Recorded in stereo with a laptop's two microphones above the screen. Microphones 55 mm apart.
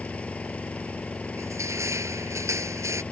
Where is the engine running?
25° left (ahead or behind).